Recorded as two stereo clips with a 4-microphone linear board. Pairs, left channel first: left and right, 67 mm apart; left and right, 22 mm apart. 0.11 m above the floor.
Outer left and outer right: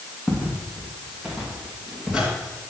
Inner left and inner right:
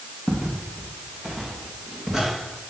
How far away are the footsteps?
About 3.5 m.